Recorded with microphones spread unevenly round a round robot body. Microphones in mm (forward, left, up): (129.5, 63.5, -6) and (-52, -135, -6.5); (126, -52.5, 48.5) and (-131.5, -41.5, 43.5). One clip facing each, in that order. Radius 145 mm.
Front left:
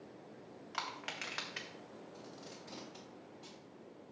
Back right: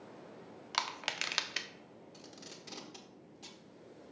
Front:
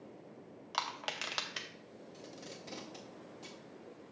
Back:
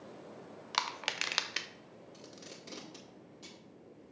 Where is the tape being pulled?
115° right, 1.6 m.